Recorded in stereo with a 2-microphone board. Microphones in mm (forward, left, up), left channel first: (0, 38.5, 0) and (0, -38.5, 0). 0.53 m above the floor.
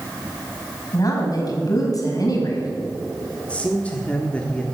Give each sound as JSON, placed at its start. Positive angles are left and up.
{"t": 0.9, "sound": "a woman speaking", "side_deg": 50, "distance_m": 4.0}
{"t": 3.5, "sound": "a man speaking", "side_deg": 15, "distance_m": 1.2}